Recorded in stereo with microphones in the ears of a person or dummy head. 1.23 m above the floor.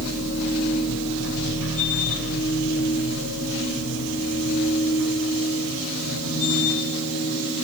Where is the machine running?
80° left, 5 m.